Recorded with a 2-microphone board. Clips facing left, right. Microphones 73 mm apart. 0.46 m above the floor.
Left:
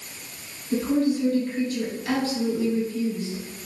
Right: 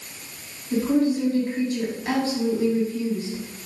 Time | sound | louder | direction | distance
0.7 | a woman speaking | right 1 dB | 30° right (ahead or behind) | 3 m